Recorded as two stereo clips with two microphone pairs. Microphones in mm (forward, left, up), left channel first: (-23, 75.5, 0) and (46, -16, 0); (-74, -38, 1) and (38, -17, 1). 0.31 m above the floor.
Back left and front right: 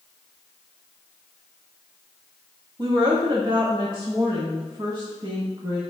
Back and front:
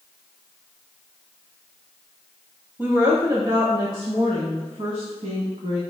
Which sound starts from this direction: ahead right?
A woman speaking, at 2.8 s.